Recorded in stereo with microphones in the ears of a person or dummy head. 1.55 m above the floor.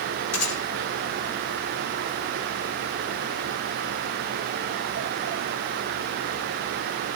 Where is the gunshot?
90° left, 7.5 m.